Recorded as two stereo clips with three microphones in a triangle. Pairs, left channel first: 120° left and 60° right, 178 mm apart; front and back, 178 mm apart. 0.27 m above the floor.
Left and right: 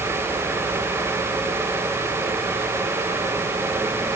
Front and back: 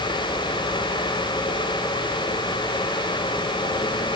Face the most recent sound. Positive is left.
No sound to turn to.